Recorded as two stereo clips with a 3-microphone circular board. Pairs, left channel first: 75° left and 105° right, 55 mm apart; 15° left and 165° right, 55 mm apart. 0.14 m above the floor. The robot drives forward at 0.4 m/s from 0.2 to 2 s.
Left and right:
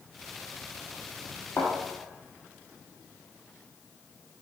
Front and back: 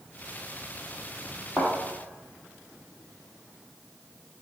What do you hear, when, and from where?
1.6 s a thud: 100° left, 2 m